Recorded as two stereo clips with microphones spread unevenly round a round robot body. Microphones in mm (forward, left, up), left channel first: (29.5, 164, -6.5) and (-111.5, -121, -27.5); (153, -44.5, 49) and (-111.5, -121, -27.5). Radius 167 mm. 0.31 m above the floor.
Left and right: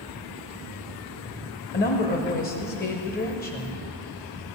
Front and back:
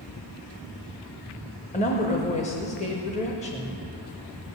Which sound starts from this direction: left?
A woman speaking, at 1.7 s.